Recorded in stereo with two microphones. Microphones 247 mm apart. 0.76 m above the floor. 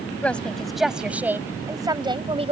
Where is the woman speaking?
5° left (ahead or behind); by 2.5 s 25° right (ahead or behind).